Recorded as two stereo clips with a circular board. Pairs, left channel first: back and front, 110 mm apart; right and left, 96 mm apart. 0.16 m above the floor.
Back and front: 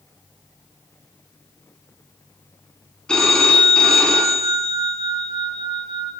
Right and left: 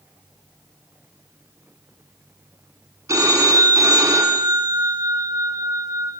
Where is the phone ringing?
100° left, 1.1 m.